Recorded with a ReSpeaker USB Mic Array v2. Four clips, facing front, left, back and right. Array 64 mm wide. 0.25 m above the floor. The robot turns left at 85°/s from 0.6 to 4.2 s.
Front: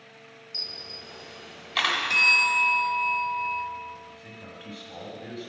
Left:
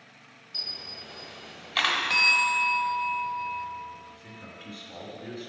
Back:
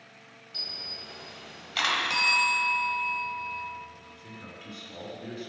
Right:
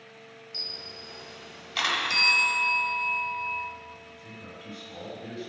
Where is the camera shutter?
160° left, 1.0 m; by 2.0 s 45° left, 1.0 m.